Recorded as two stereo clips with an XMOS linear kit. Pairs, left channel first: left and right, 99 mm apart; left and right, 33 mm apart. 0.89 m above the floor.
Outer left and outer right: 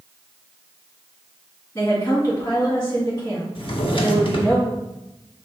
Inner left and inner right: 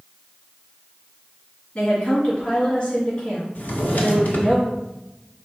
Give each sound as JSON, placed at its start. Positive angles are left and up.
{"t": 1.8, "sound": "a woman speaking", "side_deg": 45, "distance_m": 1.7}
{"t": 3.5, "sound": "a drawer", "side_deg": 60, "distance_m": 0.6}